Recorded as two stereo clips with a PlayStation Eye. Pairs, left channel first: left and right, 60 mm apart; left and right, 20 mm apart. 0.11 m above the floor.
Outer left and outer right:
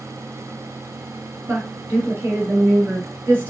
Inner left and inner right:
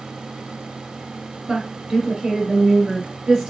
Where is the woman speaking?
45° right (ahead or behind), 2.5 m.